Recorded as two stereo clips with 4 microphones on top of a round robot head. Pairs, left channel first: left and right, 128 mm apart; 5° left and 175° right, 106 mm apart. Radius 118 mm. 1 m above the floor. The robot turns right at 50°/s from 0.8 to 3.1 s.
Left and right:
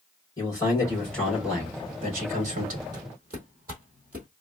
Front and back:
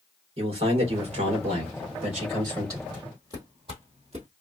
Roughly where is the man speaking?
Behind left.